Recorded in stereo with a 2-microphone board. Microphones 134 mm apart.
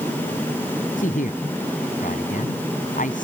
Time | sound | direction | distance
1.0 | a man speaking | 85° left | ?